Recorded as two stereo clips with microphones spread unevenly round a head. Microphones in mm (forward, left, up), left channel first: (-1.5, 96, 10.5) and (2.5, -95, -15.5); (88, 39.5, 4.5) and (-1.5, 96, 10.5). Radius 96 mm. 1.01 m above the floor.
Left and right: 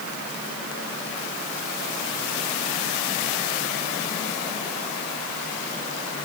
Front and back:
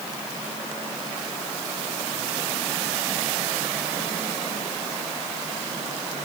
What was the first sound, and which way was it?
Only background noise.